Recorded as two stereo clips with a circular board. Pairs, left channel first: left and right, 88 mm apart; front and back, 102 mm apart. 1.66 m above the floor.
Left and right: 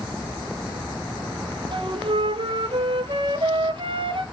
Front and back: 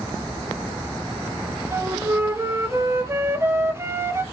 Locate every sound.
1.7 s a flute: 115° right, 0.9 m